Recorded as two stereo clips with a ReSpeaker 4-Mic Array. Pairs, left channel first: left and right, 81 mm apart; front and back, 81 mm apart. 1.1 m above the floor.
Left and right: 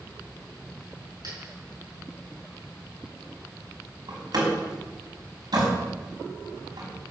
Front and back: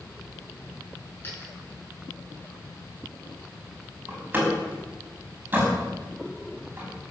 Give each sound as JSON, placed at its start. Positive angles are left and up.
{"t": 1.2, "sound": "a dropped coin", "azimuth_deg": -60, "distance_m": 7.0}
{"t": 4.1, "sound": "a door slam", "azimuth_deg": -115, "distance_m": 5.5}